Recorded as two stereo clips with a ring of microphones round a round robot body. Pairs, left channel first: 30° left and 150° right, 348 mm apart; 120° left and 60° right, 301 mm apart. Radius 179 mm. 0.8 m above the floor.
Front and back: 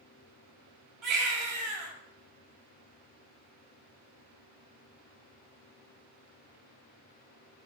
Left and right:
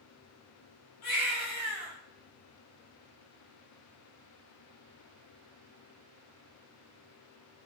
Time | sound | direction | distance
1.0 | a baby crying | 165° left | 3.5 m